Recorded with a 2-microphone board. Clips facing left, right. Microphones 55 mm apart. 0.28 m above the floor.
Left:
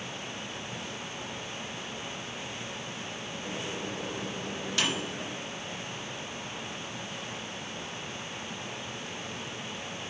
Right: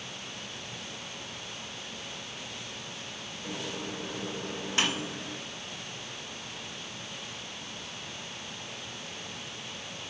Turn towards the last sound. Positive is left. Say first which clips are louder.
# even
turn(degrees=-35)  # may be behind; listen again after turning